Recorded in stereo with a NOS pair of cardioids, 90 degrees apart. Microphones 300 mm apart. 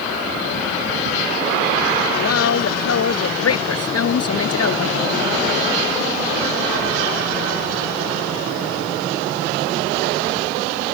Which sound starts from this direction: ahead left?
A woman speaking, at 2.1 s.